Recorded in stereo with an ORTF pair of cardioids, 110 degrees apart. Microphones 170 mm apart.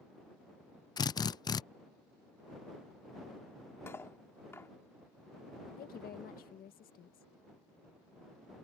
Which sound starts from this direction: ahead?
Cutlery clinking, at 3.9 s.